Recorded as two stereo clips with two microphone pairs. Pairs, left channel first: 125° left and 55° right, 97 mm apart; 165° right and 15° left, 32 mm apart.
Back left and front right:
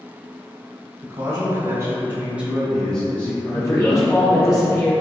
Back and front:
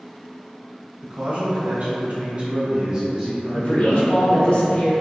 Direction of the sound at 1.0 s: 20° right.